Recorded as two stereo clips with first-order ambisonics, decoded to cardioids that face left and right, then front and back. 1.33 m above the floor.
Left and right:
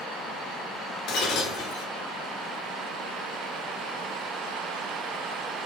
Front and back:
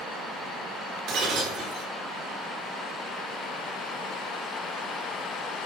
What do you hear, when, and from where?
1.1 s breaking glass: 135° left, 2.5 m